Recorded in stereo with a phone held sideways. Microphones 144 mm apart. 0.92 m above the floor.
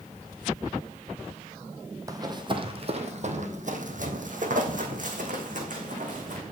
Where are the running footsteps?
25° right (ahead or behind), 1.4 m; by 6.4 s 55° right (ahead or behind), 3 m.